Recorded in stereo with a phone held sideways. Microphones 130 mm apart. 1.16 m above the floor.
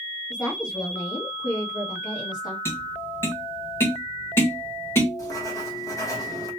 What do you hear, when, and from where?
0.3 s a woman speaking: 35° left (ahead or behind), 1.5 m
2.6 s tapping: 15° left (ahead or behind), 1.4 m
5.2 s writing: 25° left (ahead or behind), 1.0 m